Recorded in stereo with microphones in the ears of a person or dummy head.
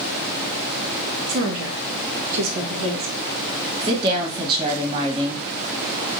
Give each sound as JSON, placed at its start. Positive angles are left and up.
{"t": 1.3, "sound": "a woman speaking", "side_deg": -60, "distance_m": 0.8}
{"t": 3.8, "sound": "a woman speaking", "side_deg": -25, "distance_m": 1.3}